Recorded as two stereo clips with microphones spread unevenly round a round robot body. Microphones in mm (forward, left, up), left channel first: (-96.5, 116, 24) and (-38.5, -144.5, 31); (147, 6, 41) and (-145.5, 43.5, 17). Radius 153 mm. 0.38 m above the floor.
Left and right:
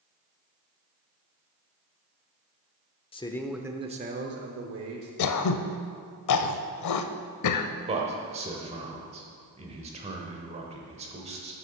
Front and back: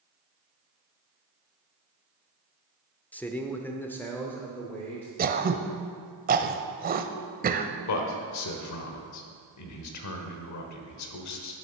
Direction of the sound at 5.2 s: 115° left.